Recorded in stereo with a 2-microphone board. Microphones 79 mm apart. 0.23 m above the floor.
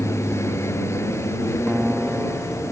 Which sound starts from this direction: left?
An aircraft, at 0.0 s.